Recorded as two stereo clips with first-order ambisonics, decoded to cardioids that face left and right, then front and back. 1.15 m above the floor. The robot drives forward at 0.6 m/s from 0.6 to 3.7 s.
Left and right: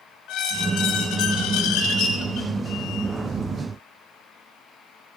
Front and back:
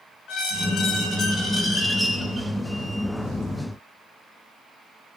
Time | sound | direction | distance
0.3 | a squeak | 50° left | 1.4 m